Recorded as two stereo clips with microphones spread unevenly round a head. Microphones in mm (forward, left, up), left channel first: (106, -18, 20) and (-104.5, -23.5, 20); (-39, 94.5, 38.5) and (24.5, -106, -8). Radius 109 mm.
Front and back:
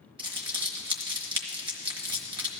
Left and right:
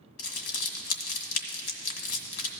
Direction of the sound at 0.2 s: 115° left.